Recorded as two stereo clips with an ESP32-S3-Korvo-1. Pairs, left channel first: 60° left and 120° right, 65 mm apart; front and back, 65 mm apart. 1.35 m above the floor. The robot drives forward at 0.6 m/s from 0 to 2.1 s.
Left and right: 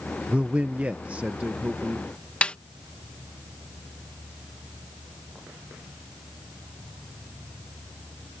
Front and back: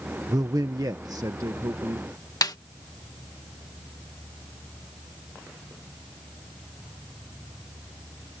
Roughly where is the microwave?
I don't hear a microwave.